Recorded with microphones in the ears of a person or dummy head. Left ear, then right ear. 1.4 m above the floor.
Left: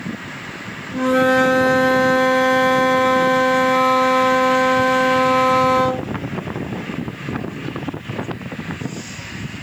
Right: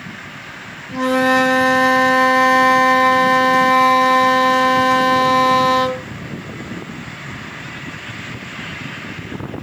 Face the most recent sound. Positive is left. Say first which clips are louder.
# right 1 dB
turn(degrees=-55)  # may be behind; listen again after turning